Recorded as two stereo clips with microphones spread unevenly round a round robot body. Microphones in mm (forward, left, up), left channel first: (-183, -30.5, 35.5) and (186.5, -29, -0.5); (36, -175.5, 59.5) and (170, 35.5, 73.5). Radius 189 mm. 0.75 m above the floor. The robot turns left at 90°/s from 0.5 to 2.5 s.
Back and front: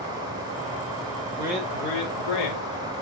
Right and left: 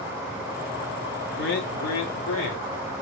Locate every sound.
1.4 s a man speaking: 75° right, 3 m; by 2.7 s 175° right, 3 m